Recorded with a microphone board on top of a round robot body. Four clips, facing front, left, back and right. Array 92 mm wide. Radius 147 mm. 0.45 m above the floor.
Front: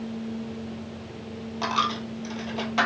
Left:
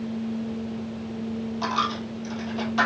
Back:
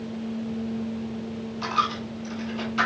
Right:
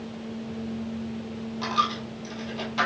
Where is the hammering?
I don't hear hammering.